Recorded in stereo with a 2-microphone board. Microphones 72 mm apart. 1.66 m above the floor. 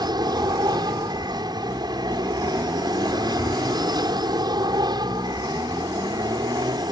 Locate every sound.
0.0 s an aircraft: 75° right (ahead or behind)